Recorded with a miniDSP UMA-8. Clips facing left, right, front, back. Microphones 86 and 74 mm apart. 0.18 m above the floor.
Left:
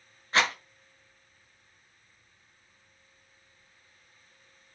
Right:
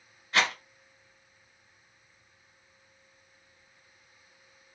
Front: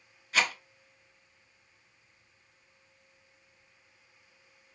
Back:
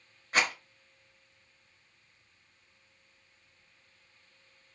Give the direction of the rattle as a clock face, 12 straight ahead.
7 o'clock.